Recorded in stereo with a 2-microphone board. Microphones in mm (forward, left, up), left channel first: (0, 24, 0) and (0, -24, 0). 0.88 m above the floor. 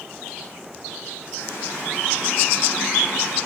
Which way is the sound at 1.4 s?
60° left (ahead or behind).